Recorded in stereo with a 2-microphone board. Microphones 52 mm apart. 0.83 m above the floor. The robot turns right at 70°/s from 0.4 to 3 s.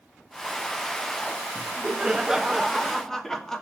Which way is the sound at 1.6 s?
25° right (ahead or behind).